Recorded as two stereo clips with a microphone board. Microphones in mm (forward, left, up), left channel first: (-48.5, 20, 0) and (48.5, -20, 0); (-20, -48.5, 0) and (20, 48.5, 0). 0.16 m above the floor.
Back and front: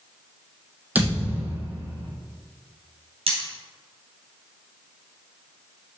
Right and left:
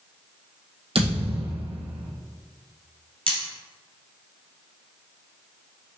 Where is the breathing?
I don't hear breathing.